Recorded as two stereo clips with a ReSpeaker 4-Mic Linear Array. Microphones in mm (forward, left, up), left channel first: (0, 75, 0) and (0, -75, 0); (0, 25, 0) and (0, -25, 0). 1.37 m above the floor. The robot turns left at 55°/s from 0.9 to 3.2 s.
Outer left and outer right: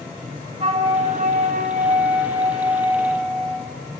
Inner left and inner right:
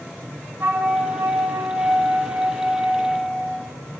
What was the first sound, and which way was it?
A flute, 50° right.